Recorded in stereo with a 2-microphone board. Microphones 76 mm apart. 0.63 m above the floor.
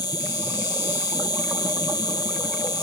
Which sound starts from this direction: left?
An insect, at 0.0 s.